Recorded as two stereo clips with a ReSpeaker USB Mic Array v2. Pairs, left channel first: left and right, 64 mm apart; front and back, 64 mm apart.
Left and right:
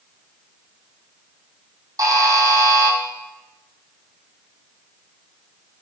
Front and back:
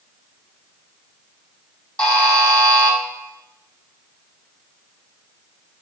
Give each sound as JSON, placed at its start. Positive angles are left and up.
{"t": 2.0, "sound": "a buzzer", "azimuth_deg": -80, "distance_m": 2.0}